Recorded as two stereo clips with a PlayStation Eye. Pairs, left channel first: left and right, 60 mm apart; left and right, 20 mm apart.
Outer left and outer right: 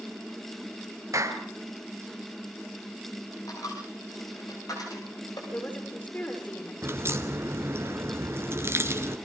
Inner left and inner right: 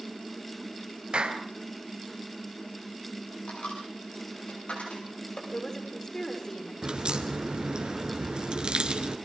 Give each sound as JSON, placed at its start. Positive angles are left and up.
{"t": 1.1, "sound": "a clap", "side_deg": -60, "distance_m": 2.5}
{"t": 3.5, "sound": "a dropped coin", "side_deg": 90, "distance_m": 8.0}
{"t": 5.5, "sound": "a woman speaking", "side_deg": 30, "distance_m": 8.0}
{"t": 6.8, "sound": "a crack", "side_deg": -45, "distance_m": 2.5}